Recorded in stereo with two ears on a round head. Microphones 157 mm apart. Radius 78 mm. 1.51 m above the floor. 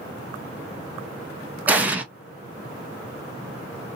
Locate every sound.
1.7 s an explosion: 10° right (ahead or behind), 0.6 m